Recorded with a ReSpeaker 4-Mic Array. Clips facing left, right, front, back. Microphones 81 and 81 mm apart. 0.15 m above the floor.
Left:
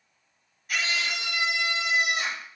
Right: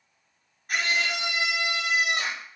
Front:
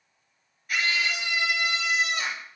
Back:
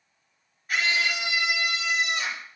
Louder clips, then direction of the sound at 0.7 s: Right 2 dB, back 1 dB; 125° right.